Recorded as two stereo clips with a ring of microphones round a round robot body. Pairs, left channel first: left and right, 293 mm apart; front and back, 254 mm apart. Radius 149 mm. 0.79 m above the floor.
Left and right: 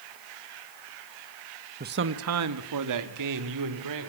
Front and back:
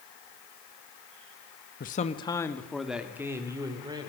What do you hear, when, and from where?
1.8 s a man speaking: 40° right, 1.3 m; by 4.1 s 105° right, 4 m